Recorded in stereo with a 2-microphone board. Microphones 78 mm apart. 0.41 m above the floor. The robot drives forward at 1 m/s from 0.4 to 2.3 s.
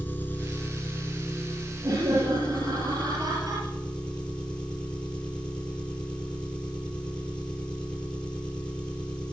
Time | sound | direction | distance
0.0 | an engine running | 25° left (ahead or behind) | 2 m
1.8 | laughter | 60° right (ahead or behind) | 9 m